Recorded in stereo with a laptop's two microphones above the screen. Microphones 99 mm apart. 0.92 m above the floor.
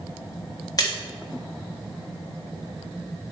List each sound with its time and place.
0.8 s a splash: 40° left (ahead or behind), 1.6 m